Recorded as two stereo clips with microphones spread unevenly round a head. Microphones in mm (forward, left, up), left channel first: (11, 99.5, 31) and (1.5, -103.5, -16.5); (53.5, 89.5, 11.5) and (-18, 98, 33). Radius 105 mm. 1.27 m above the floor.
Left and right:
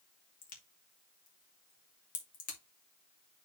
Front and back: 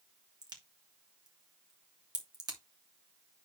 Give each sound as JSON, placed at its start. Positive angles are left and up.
{"t": 0.4, "sound": "a crack", "azimuth_deg": 145, "distance_m": 2.5}